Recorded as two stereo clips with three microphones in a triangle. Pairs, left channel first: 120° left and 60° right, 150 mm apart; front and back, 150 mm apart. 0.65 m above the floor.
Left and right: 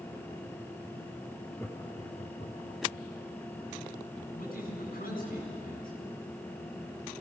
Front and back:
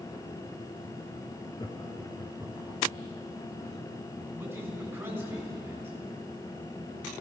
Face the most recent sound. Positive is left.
turn(degrees=105)